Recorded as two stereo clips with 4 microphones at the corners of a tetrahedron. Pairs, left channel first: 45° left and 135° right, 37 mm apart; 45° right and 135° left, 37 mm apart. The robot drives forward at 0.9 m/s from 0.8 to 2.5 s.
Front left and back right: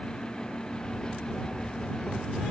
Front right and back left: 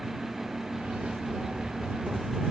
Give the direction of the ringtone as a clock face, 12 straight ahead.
No ringtone in this recording.